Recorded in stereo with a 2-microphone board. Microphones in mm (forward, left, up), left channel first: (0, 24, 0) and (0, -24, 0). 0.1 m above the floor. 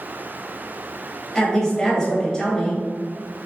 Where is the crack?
No crack in this recording.